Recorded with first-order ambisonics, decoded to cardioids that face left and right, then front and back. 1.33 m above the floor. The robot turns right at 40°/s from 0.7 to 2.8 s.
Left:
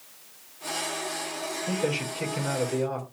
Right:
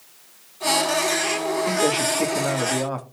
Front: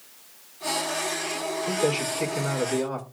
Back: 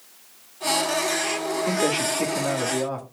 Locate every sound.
1.7 s a man speaking: 150° right, 1.9 m; by 3.0 s 100° right, 1.9 m